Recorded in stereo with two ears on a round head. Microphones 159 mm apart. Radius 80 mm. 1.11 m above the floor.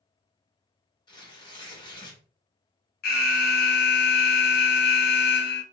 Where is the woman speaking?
No woman speaking in this recording.